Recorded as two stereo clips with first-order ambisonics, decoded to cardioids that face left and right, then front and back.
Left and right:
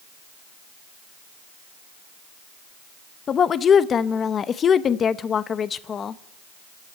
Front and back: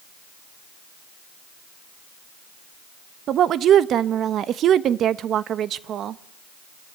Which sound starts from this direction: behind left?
A woman speaking, at 3.3 s.